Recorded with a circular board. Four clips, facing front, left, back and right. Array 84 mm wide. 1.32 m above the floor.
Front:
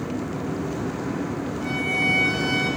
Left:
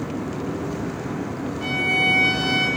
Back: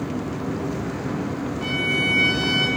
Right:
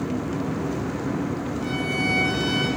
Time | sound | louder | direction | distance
1.6 | a violin | left 4 dB, even | 130° left | 0.7 m